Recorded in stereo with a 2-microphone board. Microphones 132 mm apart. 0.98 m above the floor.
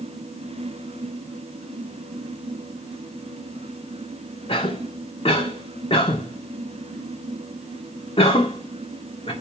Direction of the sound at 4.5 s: 50° left (ahead or behind).